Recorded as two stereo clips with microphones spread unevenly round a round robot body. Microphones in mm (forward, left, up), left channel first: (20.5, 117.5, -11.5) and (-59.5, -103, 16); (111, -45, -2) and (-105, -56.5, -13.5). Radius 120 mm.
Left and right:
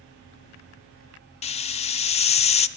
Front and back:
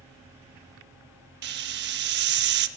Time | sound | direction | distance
1.4 | a hiss | 135° left | 0.5 m